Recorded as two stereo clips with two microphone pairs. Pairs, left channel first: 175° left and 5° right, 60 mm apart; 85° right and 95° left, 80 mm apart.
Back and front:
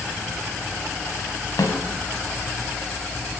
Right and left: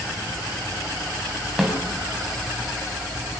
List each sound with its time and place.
1.6 s a snare drum: 175° right, 5 m